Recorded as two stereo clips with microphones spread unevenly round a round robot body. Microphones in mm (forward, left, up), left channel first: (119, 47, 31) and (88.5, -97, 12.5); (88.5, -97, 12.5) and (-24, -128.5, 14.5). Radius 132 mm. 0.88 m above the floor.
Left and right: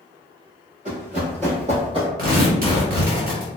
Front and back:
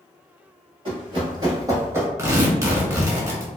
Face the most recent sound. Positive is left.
turn(degrees=-100)